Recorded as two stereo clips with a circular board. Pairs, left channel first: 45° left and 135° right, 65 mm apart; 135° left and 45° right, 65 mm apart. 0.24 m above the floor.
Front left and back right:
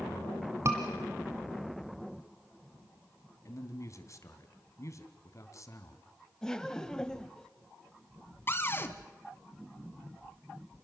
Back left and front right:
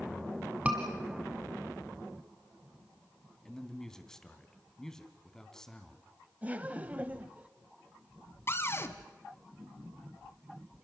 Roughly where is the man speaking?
Ahead left.